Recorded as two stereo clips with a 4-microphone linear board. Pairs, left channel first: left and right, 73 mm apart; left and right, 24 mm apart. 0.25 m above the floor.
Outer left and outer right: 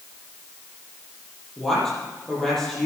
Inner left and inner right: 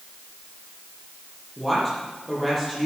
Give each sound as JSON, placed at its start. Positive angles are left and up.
{"t": 1.6, "sound": "a woman speaking", "side_deg": 10, "distance_m": 8.0}